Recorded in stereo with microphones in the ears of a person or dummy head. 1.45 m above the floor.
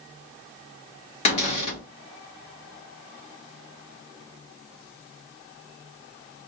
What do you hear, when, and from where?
1.2 s a cupboard door: 35° left (ahead or behind), 1.3 m